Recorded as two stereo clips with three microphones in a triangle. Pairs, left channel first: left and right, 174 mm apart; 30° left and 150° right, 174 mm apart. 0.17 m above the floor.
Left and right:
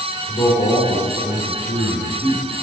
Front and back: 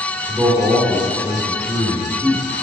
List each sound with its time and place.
0.3 s a man speaking: 135° left, 3 m